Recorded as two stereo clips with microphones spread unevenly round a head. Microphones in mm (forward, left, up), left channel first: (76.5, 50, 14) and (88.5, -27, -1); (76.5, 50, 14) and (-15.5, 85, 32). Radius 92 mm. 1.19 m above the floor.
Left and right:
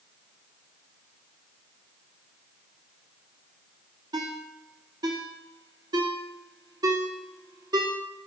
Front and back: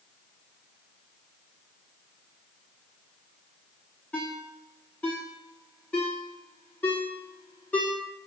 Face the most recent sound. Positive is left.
turn(degrees=-110)